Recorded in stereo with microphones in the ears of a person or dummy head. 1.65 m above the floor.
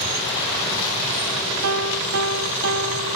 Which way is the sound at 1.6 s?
75° right (ahead or behind).